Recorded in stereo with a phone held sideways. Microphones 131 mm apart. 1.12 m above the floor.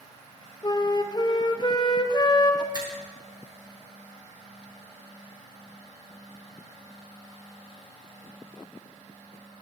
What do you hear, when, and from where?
0.6 s a flute: 30° left (ahead or behind), 0.8 m
2.7 s a finger snap: 35° right (ahead or behind), 3 m